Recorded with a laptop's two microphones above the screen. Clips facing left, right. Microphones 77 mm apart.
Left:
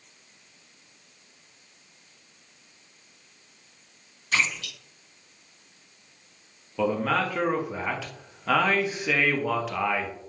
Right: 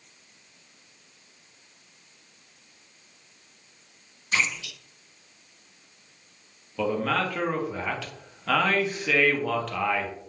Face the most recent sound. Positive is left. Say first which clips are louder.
# left 1 dB
turn(degrees=10)  # may be behind; listen again after turning